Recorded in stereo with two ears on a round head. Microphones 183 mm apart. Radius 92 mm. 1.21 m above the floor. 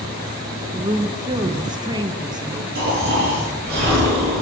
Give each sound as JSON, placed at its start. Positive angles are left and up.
{"t": 0.7, "sound": "a woman speaking", "side_deg": -20, "distance_m": 1.3}
{"t": 2.8, "sound": "snoring", "side_deg": -50, "distance_m": 9.0}